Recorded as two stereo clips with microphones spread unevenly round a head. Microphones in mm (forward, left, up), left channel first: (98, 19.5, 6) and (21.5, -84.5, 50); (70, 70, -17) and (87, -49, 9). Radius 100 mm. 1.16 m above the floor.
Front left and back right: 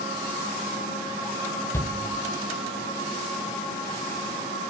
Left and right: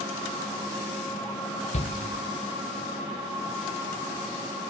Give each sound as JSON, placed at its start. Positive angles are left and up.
{"t": 1.7, "sound": "a shout", "azimuth_deg": 115, "distance_m": 0.5}